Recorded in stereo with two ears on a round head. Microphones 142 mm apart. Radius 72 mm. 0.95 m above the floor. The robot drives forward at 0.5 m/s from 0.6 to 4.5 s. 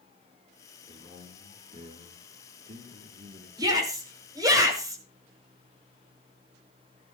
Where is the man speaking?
35° right (ahead or behind), 3 m; by 3.5 s 55° right (ahead or behind), 2.5 m.